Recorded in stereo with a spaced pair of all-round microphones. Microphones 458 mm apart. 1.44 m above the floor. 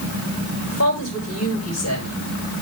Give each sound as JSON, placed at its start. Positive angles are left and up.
{"t": 0.7, "sound": "a woman speaking", "side_deg": 35, "distance_m": 6.0}